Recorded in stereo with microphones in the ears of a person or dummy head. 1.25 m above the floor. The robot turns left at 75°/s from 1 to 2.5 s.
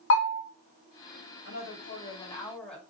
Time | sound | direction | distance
0.1 | a bell | 80° left | 1.1 m
1.4 | a woman speaking | 85° left | 2.5 m